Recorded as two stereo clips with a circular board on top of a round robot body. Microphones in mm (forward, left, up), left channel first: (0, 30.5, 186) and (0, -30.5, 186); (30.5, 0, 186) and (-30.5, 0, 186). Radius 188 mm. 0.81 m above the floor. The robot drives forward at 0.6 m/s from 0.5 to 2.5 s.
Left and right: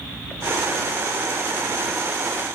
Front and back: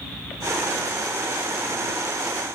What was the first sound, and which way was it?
Only background noise.